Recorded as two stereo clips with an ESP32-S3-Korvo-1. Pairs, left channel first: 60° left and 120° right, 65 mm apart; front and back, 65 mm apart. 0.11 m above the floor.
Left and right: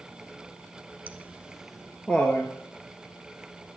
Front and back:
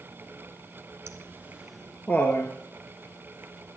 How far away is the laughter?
About 1.5 m.